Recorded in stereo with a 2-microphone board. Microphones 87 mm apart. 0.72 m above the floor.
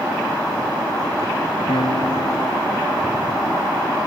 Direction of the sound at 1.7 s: 85° left.